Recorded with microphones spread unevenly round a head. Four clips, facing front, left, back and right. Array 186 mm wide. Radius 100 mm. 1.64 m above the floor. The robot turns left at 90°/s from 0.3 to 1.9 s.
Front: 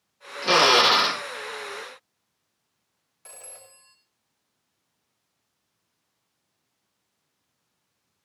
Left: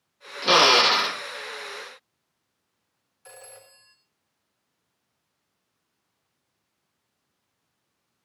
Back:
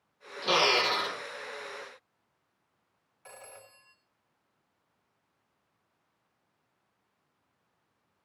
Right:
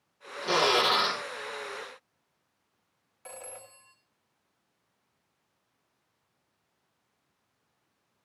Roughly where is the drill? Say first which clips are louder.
Left 6 dB, front 8 dB; left.